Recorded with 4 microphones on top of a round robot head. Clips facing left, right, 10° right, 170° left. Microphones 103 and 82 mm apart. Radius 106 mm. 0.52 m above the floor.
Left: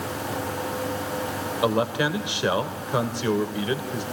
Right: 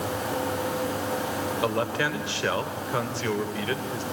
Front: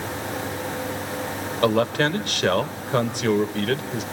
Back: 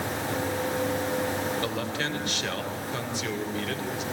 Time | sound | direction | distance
1.6 | a man speaking | 20° left | 3 m